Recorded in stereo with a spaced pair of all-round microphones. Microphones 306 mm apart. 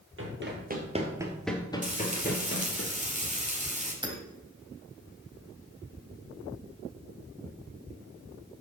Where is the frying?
25° right (ahead or behind), 2 m.